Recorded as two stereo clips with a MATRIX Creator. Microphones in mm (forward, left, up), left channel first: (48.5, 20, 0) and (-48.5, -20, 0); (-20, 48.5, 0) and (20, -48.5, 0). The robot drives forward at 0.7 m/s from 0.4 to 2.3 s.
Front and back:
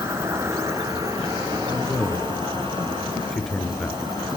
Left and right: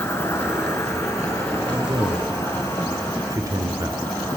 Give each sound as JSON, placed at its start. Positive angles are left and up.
{"t": 0.0, "sound": "an insect", "azimuth_deg": 160, "distance_m": 1.8}
{"t": 1.7, "sound": "a man speaking", "azimuth_deg": -40, "distance_m": 1.6}